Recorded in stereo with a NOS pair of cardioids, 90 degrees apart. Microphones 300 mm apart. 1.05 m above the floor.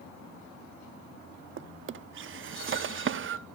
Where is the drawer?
45° right, 1.0 m.